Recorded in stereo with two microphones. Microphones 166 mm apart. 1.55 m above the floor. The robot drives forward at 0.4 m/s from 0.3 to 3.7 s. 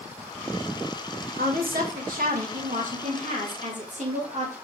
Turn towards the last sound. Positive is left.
turn(degrees=-45)  # may be behind; listen again after turning